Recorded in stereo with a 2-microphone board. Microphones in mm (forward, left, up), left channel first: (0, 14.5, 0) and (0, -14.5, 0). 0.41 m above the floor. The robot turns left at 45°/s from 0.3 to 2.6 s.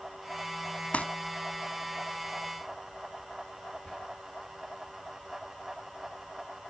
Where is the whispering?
30° left (ahead or behind), 1.4 m.